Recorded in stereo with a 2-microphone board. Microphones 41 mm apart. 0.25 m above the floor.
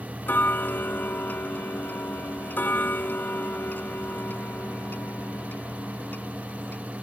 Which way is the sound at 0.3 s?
55° left (ahead or behind).